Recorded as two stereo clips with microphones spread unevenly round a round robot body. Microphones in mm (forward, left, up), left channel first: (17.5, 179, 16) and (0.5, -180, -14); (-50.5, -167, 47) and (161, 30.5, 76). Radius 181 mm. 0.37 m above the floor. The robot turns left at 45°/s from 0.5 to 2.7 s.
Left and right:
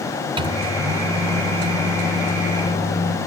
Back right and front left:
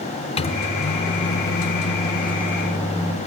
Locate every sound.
0.4 s a microwave: 140° right, 0.7 m; by 3.2 s 125° left, 0.7 m